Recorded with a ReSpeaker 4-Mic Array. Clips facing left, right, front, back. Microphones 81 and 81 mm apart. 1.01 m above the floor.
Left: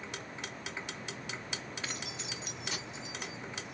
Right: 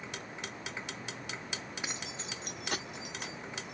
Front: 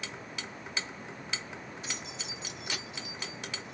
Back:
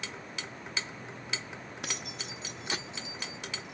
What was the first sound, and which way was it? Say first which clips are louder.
Keys jangling: even, back 1 dB; 165° right.